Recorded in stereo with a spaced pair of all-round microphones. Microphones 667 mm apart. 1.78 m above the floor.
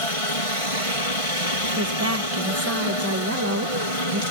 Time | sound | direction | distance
0.0 | a helicopter | 55° left (ahead or behind) | ?
1.8 | a woman speaking | 20° right (ahead or behind) | ?